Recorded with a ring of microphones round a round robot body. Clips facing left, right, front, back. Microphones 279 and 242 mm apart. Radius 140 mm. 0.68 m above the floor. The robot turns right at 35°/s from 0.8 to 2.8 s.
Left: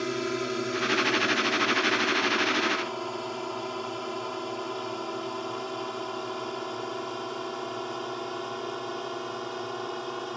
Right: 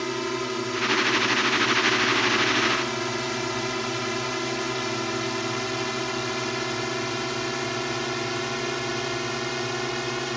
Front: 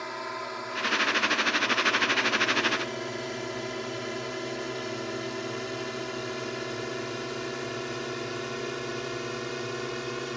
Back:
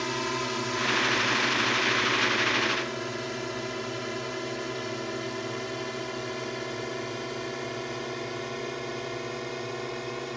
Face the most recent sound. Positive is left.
turn(degrees=-75)